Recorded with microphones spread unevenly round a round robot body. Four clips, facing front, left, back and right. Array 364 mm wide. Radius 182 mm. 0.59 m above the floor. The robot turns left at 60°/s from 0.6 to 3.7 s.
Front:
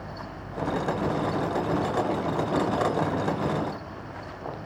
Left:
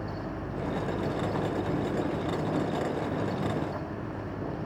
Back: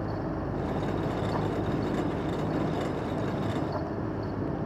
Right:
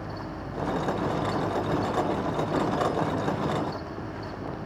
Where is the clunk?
I don't hear a clunk.